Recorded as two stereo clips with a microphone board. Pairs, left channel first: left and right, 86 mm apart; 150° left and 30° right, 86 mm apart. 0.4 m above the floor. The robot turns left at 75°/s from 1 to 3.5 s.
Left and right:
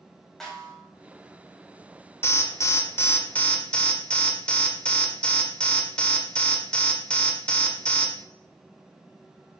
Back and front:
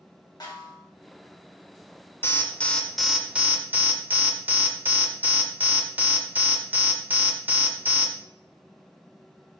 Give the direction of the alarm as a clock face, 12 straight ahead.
8 o'clock.